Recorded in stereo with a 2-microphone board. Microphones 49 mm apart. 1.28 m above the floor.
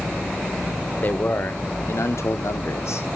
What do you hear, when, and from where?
1.0 s a man speaking: 35° left (ahead or behind), 0.9 m; by 3.2 s 65° left (ahead or behind), 1.1 m